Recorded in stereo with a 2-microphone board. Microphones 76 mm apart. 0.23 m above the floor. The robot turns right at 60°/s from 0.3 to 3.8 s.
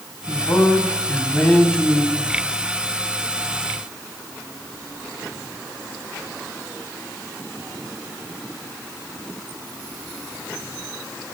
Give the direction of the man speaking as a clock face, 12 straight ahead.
9 o'clock.